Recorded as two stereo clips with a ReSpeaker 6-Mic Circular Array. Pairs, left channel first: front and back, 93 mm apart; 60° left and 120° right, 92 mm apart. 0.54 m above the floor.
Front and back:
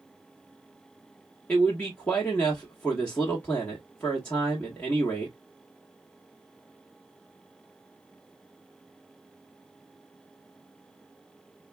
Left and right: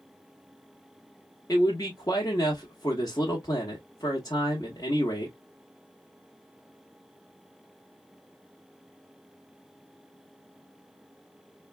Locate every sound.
1.5 s a man speaking: 60° left, 1.2 m